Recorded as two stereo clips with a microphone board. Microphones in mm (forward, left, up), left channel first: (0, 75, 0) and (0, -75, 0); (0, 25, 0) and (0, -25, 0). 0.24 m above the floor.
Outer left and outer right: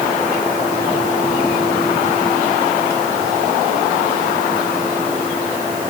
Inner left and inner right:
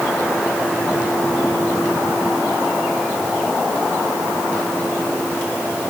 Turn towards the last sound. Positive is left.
No sound to turn to.